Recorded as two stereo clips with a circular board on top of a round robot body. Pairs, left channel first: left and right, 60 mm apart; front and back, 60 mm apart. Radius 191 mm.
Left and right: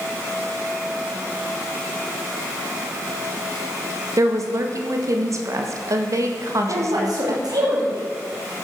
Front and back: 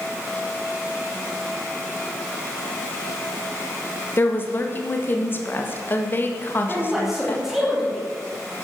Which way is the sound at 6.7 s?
95° right.